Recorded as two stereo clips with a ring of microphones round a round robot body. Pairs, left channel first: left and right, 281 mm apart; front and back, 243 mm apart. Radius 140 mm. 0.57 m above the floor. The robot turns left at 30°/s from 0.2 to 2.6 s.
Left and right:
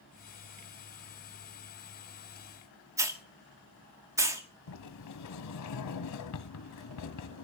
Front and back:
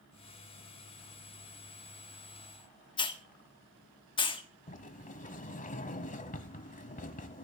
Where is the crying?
I don't hear crying.